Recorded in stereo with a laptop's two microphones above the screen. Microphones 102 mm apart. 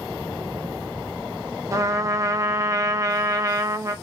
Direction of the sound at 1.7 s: 30° right (ahead or behind).